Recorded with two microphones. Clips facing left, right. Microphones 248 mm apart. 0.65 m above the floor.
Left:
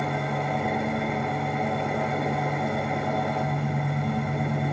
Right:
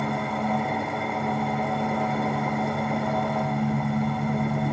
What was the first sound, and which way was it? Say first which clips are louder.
An engine running: right 1 dB; 20° left (ahead or behind).